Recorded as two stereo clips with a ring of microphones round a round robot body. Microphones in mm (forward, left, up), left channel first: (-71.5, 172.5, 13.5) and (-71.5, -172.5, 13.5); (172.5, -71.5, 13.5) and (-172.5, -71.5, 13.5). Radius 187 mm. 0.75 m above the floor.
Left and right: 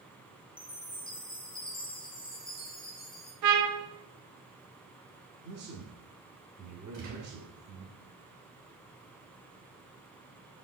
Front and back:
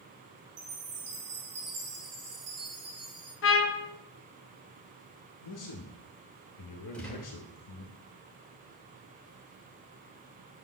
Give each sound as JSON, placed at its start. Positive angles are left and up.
{"t": 0.6, "sound": "a chime", "azimuth_deg": 165, "distance_m": 2.5}
{"t": 3.4, "sound": "a trumpet", "azimuth_deg": -55, "distance_m": 0.8}
{"t": 5.4, "sound": "a man speaking", "azimuth_deg": -30, "distance_m": 0.9}
{"t": 6.9, "sound": "a gunshot", "azimuth_deg": -85, "distance_m": 2.5}